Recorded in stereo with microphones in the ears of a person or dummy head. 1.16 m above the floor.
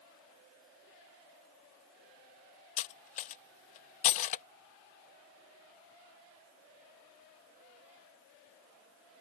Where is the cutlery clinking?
40° left (ahead or behind).